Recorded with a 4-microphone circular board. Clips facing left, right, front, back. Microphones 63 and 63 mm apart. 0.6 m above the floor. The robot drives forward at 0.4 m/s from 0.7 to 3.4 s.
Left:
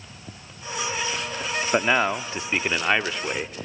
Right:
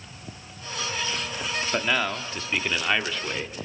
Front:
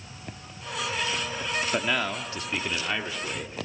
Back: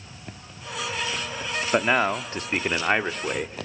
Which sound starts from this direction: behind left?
A man speaking, at 1.7 s.